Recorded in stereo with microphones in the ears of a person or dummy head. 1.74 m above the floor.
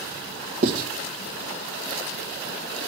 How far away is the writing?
About 1.7 m.